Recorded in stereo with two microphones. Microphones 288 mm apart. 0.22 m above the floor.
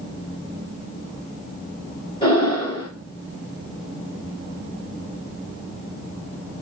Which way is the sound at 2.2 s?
15° left (ahead or behind).